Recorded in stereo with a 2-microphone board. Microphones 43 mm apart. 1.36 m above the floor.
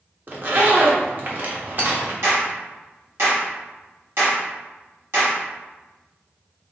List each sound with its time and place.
0.3 s a zipper: 45° right (ahead or behind), 0.8 m
2.2 s a clap: 70° right (ahead or behind), 1.8 m